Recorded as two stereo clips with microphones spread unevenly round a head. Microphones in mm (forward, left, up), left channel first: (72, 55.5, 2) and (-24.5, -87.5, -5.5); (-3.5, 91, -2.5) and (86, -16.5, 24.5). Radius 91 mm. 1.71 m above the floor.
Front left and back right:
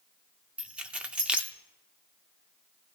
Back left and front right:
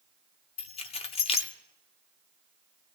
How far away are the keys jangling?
About 0.6 m.